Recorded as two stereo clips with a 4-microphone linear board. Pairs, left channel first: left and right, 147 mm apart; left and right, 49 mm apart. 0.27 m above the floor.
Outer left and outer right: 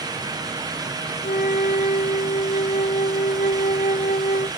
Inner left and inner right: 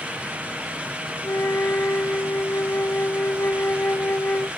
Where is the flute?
85° left, 1.1 m.